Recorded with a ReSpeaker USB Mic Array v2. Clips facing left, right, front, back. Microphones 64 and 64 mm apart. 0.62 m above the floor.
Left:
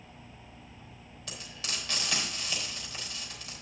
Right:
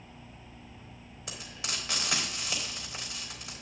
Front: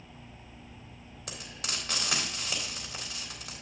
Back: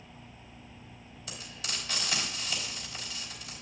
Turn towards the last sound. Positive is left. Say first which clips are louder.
# right 1 dB, front 1 dB
turn(degrees=-20)